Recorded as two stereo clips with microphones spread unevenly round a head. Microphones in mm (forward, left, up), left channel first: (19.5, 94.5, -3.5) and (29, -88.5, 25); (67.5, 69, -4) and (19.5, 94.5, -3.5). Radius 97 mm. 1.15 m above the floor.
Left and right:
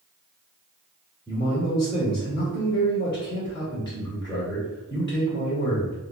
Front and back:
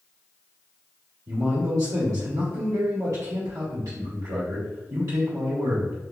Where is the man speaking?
160° left, 1.9 m.